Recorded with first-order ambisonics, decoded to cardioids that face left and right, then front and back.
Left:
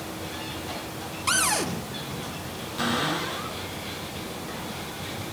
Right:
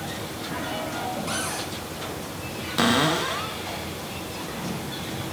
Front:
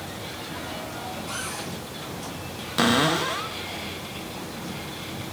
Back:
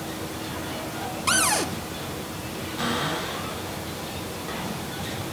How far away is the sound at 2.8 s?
About 1.1 m.